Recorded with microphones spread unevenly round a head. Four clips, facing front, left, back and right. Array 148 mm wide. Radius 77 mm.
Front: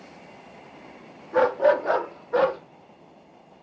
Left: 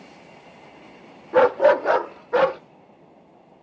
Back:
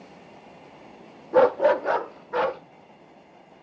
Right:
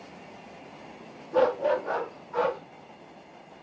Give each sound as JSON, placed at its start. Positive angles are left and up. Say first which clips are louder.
{"t": 1.3, "sound": "a dog barking", "louder": "left 8 dB, back 1 dB", "azimuth_deg": 135, "distance_m": 0.8}